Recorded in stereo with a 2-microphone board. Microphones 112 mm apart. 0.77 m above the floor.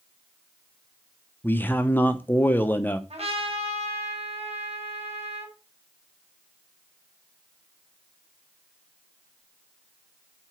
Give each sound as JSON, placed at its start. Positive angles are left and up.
{"t": 1.4, "sound": "a man speaking", "side_deg": 20, "distance_m": 0.9}
{"t": 3.1, "sound": "a trumpet", "side_deg": -65, "distance_m": 3.0}